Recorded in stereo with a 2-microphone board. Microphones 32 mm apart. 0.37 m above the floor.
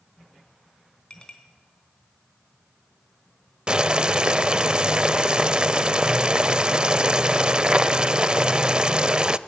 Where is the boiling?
25° right (ahead or behind), 0.5 m.